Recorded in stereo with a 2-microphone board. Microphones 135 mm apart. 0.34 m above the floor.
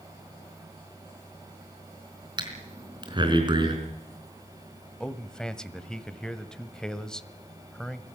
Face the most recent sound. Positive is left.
turn(degrees=5)  # may be behind; listen again after turning